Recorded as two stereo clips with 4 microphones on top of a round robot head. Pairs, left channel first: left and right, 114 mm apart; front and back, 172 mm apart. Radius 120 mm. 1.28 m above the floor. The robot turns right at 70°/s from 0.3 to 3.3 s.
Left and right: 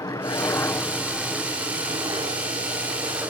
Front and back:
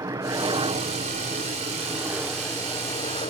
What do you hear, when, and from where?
0.0 s a helicopter: 125° left; by 3.3 s 25° right